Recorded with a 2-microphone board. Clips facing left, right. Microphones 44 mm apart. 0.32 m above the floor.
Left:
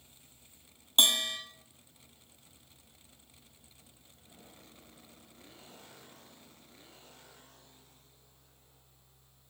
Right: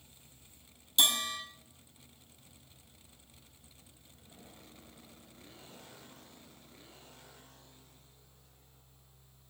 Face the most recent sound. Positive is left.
turn(degrees=50)  # may be behind; listen again after turning